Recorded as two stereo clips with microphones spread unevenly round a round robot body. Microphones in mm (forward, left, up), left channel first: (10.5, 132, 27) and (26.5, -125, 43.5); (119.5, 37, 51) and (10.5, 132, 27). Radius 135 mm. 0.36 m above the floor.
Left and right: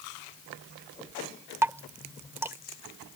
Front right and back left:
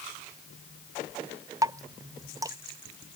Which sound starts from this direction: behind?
Dripping, at 1.6 s.